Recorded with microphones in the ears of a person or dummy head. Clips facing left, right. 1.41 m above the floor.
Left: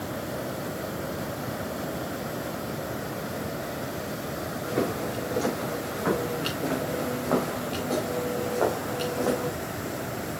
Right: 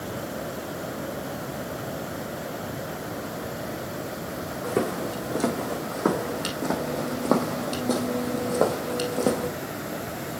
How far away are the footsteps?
About 4 m.